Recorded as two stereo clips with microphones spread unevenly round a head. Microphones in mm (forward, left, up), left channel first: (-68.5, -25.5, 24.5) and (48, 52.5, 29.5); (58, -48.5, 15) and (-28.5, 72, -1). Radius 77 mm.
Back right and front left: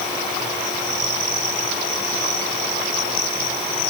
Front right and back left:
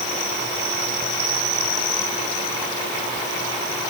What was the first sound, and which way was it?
Only background noise.